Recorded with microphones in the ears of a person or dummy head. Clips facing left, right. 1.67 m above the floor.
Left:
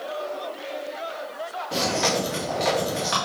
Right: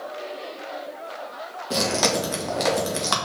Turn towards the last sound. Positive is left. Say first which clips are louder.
# right 2 dB
turn(degrees=-60)  # may be behind; listen again after turning